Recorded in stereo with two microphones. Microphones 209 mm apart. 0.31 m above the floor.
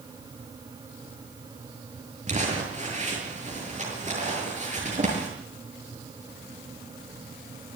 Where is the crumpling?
35° right (ahead or behind), 7 m.